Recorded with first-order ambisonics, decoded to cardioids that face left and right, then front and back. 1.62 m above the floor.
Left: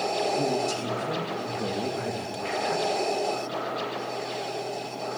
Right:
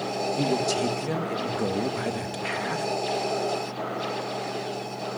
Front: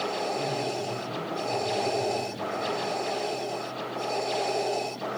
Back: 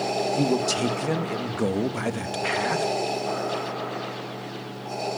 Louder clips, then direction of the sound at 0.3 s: Right 1 dB, back 6 dB; 160° right.